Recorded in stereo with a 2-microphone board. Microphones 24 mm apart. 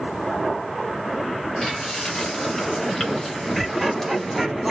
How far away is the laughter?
About 1.2 m.